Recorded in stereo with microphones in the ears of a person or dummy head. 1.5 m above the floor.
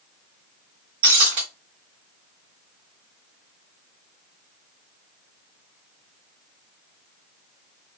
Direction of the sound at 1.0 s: 30° right (ahead or behind).